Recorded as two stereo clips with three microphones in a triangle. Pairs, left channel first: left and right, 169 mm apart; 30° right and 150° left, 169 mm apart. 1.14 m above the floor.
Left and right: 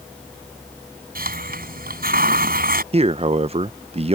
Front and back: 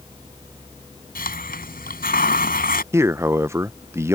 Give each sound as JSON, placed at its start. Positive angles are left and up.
{"t": 1.1, "sound": "a hiss", "azimuth_deg": -60}
{"t": 2.9, "sound": "a man speaking", "azimuth_deg": -135}